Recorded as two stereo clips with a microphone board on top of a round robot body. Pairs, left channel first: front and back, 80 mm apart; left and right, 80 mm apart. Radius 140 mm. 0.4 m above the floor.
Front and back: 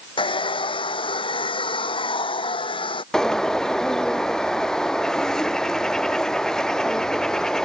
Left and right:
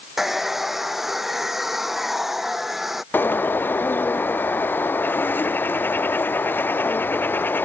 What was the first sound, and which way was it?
A hair dryer, 5° right.